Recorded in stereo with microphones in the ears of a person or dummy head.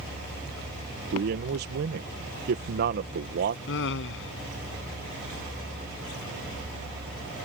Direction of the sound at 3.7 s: 60° left (ahead or behind).